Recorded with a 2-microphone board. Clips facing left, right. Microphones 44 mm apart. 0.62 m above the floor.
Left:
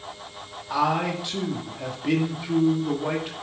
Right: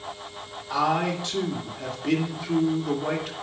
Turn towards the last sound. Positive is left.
turn(degrees=10)  # may be behind; listen again after turning